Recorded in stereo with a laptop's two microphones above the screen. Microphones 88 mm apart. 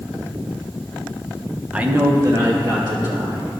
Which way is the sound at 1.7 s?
10° right (ahead or behind).